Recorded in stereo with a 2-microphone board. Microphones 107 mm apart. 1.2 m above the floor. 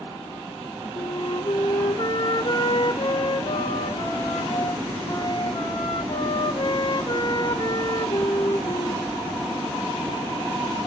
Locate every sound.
0.9 s a flute: 50° left (ahead or behind), 1.0 m